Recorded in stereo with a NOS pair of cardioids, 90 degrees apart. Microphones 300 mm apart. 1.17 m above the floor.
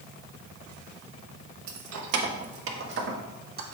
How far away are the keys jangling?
About 1.3 m.